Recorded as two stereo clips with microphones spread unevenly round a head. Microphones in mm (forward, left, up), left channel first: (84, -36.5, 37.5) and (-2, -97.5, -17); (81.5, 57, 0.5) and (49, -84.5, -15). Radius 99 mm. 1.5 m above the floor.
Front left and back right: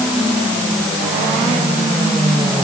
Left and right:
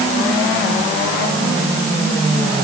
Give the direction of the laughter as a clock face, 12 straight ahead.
No laughter in this recording.